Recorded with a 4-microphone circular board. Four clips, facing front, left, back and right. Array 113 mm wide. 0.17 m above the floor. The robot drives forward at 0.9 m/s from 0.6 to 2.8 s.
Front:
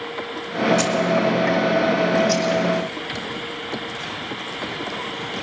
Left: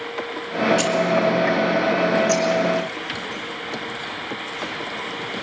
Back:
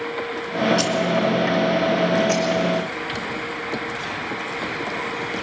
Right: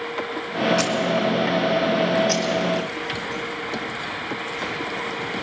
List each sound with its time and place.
0.8 s keys jangling: 65° right, 1.4 m; by 1.0 s 75° right, 1.4 m
2.3 s keys jangling: 165° right, 2.5 m